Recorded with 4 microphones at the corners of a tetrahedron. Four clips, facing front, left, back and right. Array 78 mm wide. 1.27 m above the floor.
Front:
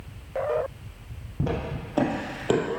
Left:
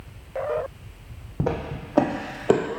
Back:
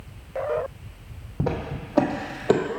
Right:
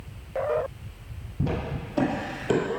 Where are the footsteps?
115° left, 2.5 m.